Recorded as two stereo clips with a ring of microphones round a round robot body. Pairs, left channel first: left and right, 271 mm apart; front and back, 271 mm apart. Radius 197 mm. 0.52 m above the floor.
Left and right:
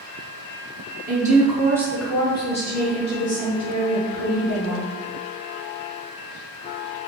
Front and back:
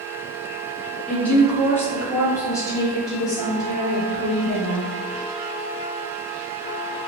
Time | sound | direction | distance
1.1 | a woman speaking | 80° right | 0.9 m